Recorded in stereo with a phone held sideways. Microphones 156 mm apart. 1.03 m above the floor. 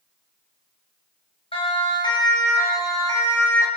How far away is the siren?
About 7.5 m.